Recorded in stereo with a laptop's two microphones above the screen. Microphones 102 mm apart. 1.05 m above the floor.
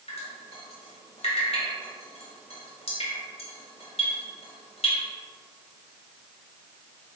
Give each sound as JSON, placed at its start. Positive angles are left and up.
{"t": 0.1, "sound": "dripping", "side_deg": 75, "distance_m": 2.0}